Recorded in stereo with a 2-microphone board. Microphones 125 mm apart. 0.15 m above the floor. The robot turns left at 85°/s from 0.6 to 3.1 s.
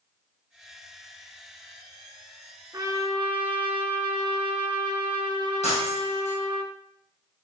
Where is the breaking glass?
70° left (ahead or behind), 4 m.